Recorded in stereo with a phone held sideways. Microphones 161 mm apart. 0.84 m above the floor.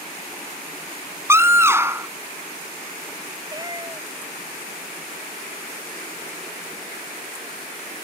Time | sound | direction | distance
1.3 | a scream | 15° right (ahead or behind) | ?
3.5 | a cat meowing | 25° right (ahead or behind) | ?